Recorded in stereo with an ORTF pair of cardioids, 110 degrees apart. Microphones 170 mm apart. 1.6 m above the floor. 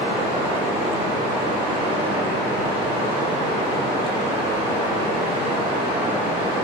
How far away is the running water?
About 1.2 m.